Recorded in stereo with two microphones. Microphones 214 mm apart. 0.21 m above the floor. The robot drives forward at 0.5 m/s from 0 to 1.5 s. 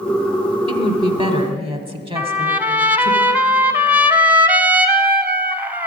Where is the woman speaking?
25° right (ahead or behind), 1.3 m.